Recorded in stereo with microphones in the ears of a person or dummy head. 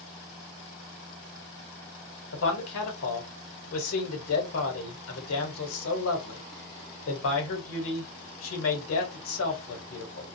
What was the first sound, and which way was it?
A man speaking, 70° left (ahead or behind).